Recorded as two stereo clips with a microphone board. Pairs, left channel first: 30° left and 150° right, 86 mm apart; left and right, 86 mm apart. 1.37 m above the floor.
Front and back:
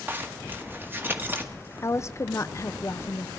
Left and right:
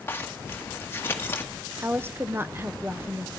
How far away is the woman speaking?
About 0.6 m.